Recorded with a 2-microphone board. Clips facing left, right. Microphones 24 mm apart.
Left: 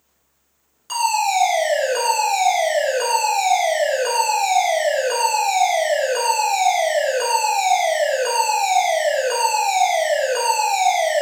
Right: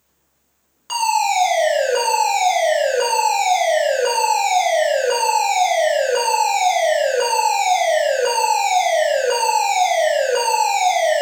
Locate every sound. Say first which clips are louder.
0.9 s a fire alarm: right 1 dB; 15° right (ahead or behind), 2.5 m